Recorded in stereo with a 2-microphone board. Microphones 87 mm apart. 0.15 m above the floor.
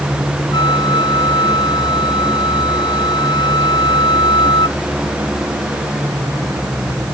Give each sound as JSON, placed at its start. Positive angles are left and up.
{"t": 0.5, "sound": "a flute", "side_deg": 60}